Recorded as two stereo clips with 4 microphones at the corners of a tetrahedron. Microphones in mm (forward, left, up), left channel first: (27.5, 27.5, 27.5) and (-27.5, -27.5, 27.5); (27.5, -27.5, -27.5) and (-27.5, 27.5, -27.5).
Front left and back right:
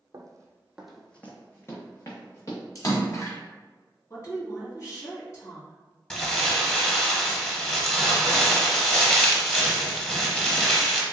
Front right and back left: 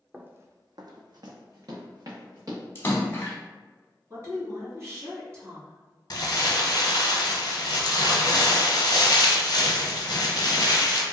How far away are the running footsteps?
About 0.6 m.